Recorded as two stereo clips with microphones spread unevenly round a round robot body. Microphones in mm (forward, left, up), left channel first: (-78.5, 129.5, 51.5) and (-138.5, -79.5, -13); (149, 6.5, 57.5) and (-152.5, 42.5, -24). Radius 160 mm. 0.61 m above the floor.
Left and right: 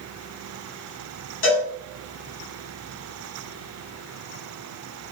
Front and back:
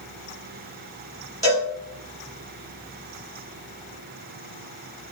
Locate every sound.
1.4 s a cowbell: 90° left, 1.3 m